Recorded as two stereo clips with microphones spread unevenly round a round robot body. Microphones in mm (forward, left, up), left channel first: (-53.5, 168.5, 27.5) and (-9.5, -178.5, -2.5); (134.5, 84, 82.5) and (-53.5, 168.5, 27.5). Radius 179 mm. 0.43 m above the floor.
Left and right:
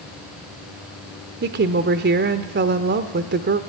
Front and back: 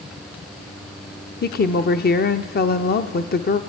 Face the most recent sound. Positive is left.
turn(degrees=-60)